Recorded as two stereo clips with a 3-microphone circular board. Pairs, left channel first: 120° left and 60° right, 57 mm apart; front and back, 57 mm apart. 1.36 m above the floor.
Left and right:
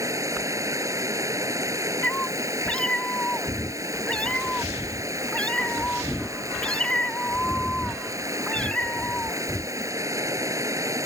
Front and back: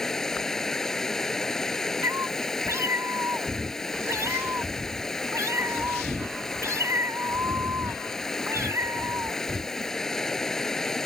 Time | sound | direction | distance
0.0 | running water | 80° right | ?
2.0 | a cat meowing | 175° right | ?